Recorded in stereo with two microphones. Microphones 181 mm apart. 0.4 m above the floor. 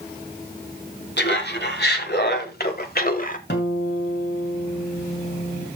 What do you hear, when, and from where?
1.2 s laughter: 75° left (ahead or behind), 3 m; by 3.4 s 50° left (ahead or behind), 1.3 m
3.5 s a guitar: 70° left (ahead or behind), 2.5 m